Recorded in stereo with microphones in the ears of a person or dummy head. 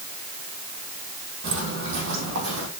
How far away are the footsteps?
About 2 m.